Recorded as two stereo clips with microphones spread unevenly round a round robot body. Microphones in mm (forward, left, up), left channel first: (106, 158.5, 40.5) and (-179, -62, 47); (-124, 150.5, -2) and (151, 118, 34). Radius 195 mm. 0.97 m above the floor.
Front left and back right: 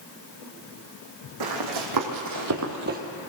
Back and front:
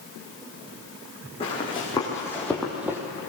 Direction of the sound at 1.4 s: 110° right.